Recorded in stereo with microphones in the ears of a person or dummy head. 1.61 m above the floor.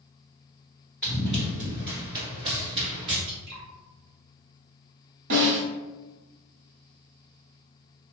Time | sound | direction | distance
1.0 | running footsteps | centre (ahead or behind) | 1.6 m
3.3 | dripping | 60° right (ahead or behind) | 1.1 m
5.3 | a snare drum | 70° right (ahead or behind) | 1.3 m